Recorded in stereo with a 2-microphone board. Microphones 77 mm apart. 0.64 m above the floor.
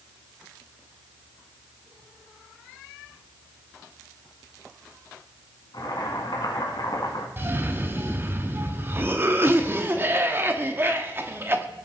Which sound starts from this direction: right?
A cough, at 7.4 s.